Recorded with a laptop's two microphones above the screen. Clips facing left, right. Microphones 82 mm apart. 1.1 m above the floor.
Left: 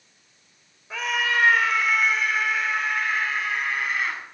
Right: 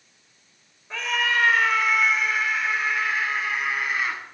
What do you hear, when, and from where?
0.9 s a scream: 5° left (ahead or behind), 4 m; by 4.2 s 5° right (ahead or behind), 8.5 m